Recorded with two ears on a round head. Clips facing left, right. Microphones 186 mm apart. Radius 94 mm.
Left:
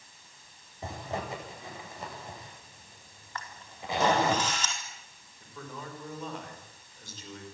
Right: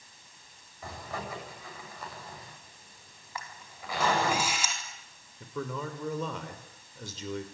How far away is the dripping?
I don't hear dripping.